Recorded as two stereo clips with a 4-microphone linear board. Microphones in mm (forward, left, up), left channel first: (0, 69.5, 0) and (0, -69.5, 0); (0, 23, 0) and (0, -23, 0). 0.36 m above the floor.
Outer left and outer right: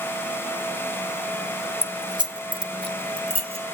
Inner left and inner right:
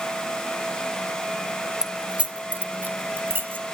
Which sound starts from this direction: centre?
Keys jangling, at 1.8 s.